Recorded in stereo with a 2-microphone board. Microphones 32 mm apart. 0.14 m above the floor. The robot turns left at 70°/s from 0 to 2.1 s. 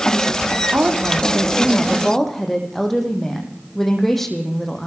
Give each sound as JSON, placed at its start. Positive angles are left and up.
{"t": 0.7, "sound": "a woman speaking", "azimuth_deg": -95, "distance_m": 7.0}